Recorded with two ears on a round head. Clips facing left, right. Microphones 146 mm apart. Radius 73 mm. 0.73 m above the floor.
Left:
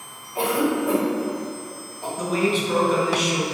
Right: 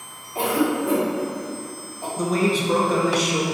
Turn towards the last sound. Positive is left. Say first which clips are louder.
# right 1 dB
turn(degrees=-35)  # may be behind; listen again after turning